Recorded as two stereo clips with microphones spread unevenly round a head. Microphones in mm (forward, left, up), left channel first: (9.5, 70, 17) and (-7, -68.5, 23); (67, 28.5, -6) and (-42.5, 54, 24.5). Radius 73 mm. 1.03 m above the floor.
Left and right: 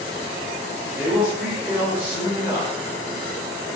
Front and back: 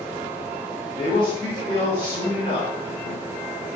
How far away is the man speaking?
About 1.4 m.